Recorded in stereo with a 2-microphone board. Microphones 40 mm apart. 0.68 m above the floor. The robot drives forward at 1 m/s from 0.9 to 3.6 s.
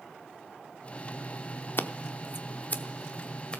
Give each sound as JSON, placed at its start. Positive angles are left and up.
{"t": 1.8, "sound": "scissors", "side_deg": 60, "distance_m": 0.7}